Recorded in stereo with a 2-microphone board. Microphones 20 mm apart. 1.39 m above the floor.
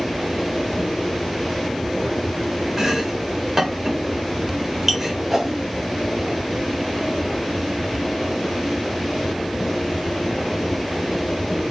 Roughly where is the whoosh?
Centre.